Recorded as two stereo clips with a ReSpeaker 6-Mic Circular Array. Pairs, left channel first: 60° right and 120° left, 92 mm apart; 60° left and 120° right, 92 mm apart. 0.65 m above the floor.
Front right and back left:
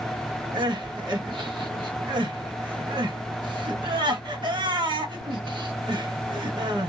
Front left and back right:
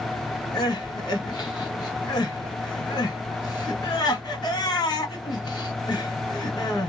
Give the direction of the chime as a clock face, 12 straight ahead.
I don't hear a chime.